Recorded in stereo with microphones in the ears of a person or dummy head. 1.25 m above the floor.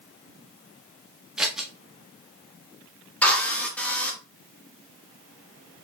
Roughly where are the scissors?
Centre.